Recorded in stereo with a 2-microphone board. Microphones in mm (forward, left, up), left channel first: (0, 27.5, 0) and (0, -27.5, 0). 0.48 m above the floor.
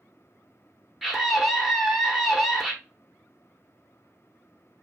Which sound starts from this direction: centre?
A scream, at 1.0 s.